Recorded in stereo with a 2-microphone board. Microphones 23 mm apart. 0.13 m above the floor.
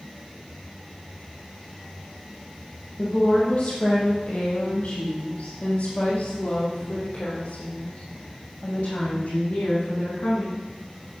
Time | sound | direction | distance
3.0 | a woman speaking | 45° left (ahead or behind) | 3 m